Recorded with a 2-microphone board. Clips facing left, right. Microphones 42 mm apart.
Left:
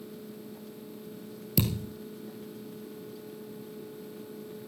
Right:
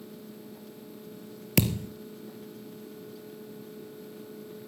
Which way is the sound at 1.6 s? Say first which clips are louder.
Right 3 dB; 70° right (ahead or behind).